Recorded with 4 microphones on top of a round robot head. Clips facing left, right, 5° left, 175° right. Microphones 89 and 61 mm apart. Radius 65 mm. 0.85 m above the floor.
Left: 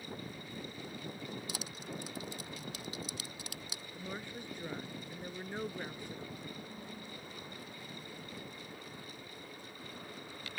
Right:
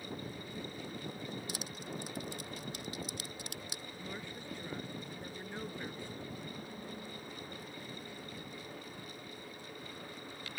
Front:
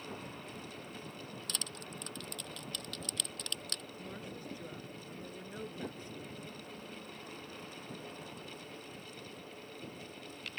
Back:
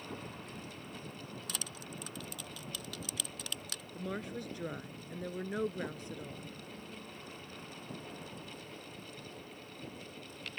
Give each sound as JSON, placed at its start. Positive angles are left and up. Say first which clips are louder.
{"t": 1.5, "sound": "crushing", "louder": "right 1 dB, even", "azimuth_deg": 100}
{"t": 4.0, "sound": "a woman speaking", "louder": "left 3 dB, back 6 dB", "azimuth_deg": 165}